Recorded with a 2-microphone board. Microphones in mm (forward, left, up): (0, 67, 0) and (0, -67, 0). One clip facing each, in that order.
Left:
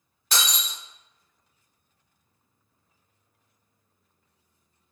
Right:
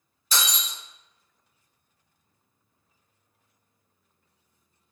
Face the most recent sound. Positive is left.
turn(degrees=70)  # may be behind; listen again after turning